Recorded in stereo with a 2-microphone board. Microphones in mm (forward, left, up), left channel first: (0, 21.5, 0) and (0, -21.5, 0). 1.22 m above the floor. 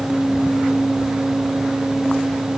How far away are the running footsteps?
No running footsteps in this recording.